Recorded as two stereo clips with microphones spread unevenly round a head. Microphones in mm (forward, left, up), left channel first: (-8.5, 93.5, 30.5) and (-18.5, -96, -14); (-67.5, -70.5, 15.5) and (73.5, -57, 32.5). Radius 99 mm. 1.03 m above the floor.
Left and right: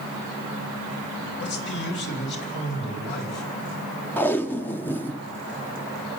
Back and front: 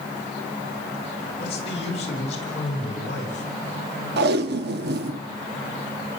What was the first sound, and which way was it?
A man speaking, 125° left.